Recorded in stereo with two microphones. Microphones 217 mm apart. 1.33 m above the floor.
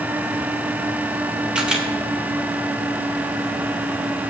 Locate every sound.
1.6 s a camera shutter: 5° right (ahead or behind), 2.5 m